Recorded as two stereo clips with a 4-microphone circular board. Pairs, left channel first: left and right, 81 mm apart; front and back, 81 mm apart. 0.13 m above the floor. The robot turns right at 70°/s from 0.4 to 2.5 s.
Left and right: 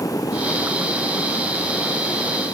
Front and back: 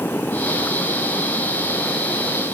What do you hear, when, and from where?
Only background noise.